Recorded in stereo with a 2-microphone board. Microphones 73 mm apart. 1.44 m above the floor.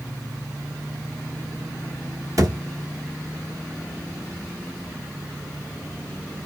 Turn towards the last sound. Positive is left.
turn(degrees=-55)  # may be behind; listen again after turning